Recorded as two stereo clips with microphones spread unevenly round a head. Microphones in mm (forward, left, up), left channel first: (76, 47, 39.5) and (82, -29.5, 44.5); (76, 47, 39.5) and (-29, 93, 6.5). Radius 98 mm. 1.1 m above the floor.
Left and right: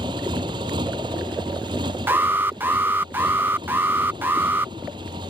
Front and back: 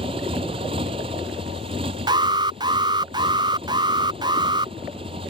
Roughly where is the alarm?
Behind right.